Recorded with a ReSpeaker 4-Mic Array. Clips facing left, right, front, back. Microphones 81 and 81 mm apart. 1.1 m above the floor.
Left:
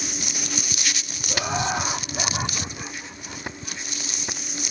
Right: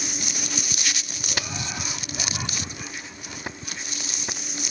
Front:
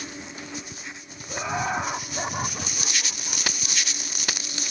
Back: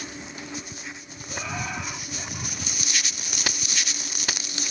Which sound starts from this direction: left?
Laughter, at 1.3 s.